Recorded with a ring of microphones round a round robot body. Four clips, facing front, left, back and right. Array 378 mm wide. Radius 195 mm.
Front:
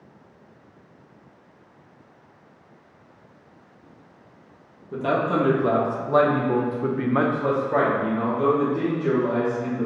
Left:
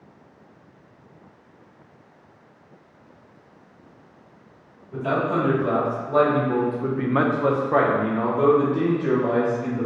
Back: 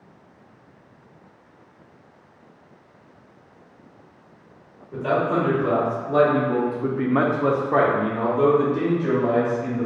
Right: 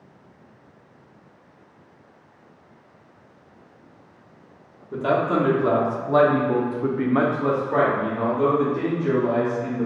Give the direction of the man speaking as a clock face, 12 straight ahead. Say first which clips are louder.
Right 2 dB, back 1 dB; 2 o'clock.